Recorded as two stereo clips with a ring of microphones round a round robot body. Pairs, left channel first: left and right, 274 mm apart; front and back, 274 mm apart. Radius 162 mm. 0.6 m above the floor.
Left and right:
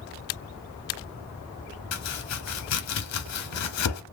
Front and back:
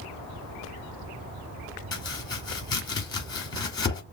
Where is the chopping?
75° left, 1.0 m.